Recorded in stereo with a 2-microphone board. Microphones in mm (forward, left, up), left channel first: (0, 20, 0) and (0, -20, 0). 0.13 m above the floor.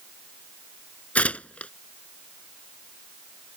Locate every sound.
1.1 s tearing paper: 35° left (ahead or behind)